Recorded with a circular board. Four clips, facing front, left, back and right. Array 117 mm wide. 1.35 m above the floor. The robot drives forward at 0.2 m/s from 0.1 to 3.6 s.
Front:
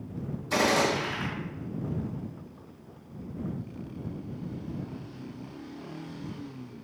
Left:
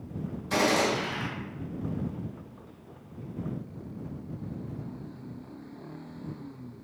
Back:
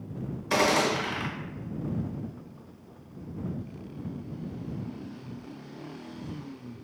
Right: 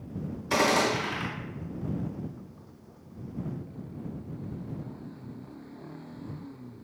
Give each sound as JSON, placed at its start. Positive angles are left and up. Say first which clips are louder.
{"t": 0.5, "sound": "a gunshot", "louder": "right 1 dB, back 1 dB", "azimuth_deg": -155, "distance_m": 0.8}